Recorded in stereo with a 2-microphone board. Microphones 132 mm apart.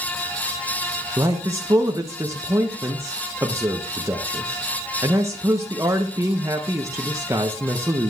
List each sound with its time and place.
1.2 s a man speaking: 20° right (ahead or behind), 0.6 m